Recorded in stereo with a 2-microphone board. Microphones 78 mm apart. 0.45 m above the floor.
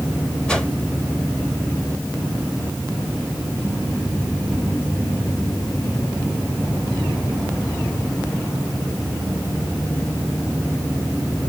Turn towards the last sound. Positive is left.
turn(degrees=10)  # may be behind; listen again after turning